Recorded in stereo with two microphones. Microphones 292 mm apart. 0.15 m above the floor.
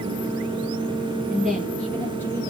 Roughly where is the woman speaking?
Centre.